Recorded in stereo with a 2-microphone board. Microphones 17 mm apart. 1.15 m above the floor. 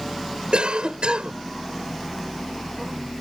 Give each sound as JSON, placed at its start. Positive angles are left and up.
{"t": 0.5, "sound": "a cough", "side_deg": -90}